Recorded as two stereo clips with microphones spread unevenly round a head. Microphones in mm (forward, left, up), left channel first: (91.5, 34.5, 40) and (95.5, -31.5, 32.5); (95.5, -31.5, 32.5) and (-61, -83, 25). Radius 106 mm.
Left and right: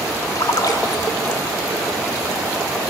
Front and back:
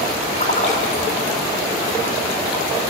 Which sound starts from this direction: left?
A splash, at 0.3 s.